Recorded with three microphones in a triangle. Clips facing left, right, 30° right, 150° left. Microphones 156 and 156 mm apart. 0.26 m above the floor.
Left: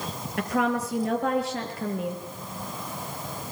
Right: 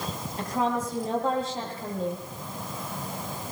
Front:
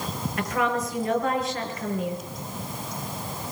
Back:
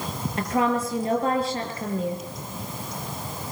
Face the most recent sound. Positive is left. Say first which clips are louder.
# left 2 dB, back 3 dB
turn(degrees=90)